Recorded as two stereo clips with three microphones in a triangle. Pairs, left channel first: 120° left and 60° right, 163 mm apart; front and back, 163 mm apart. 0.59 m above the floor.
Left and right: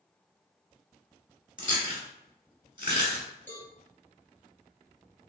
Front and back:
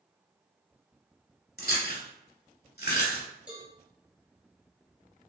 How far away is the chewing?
About 1.8 m.